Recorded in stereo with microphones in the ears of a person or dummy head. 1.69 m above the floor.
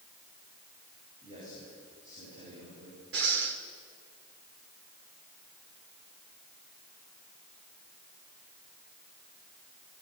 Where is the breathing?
65° right (ahead or behind), 2.5 m.